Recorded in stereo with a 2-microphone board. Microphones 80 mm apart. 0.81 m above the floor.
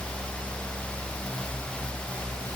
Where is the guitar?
No guitar in this recording.